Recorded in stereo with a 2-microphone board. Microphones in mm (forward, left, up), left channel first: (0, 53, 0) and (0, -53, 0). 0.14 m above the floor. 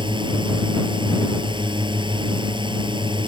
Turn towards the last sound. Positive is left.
turn(degrees=-50)  # may be behind; listen again after turning